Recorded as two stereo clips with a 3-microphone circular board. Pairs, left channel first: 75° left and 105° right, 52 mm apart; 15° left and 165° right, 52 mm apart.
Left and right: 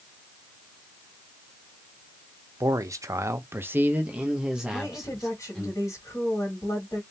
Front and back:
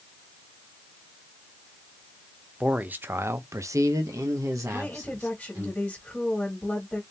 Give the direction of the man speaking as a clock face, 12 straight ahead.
3 o'clock.